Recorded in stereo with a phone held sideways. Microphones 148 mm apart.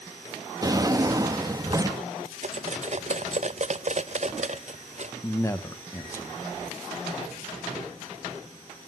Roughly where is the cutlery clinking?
Right.